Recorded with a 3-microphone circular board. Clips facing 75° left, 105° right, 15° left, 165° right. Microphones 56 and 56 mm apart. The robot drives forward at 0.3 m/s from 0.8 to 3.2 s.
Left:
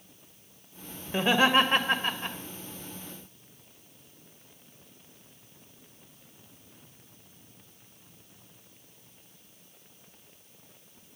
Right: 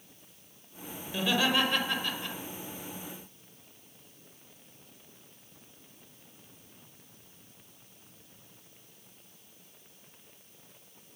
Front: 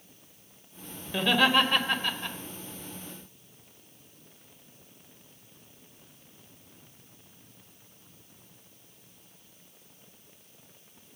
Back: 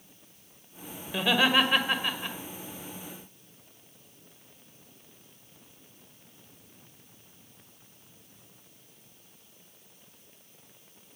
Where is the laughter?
110° left, 1.5 m; by 2.4 s 125° left, 1.6 m.